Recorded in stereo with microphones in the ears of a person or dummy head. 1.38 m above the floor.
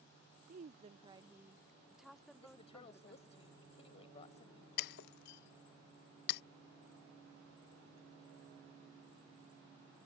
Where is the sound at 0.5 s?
50° right (ahead or behind); by 3.4 s 10° left (ahead or behind).